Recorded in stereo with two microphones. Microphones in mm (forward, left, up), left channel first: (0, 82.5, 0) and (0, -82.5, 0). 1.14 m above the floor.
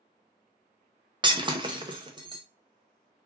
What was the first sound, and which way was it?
Breaking glass, 25° right (ahead or behind).